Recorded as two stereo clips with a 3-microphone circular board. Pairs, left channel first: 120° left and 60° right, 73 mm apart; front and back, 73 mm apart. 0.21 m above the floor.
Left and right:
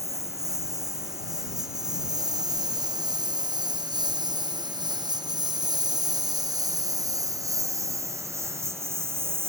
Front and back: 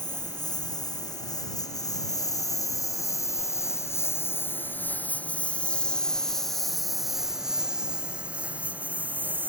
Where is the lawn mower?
20° right; by 9.5 s 115° right.